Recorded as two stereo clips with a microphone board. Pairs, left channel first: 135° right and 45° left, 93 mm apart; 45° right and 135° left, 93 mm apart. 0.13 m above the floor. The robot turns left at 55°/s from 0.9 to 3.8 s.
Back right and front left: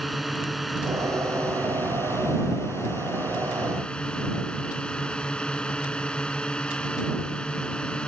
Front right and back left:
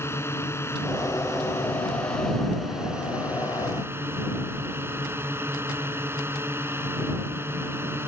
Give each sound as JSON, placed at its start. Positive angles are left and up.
{"t": 0.0, "sound": "a drone", "azimuth_deg": -45}